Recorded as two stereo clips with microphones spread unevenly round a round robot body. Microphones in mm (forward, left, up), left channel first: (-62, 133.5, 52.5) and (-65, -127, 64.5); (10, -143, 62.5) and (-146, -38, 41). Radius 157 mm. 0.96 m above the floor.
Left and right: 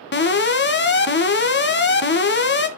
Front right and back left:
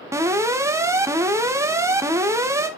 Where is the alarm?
85° left, 1.5 m.